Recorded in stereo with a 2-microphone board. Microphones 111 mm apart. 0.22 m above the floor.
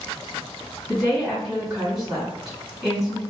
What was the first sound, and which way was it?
A woman speaking, centre (ahead or behind).